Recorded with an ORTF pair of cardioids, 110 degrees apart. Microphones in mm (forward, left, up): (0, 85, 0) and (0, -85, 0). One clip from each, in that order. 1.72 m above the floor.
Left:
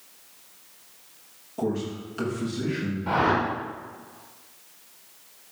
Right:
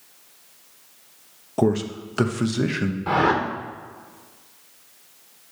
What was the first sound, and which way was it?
A man speaking, 60° right.